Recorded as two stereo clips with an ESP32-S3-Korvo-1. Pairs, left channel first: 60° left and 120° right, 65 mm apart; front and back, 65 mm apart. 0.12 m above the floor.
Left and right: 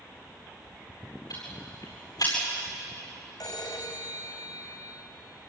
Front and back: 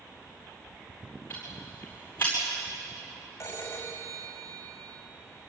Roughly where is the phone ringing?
Ahead left.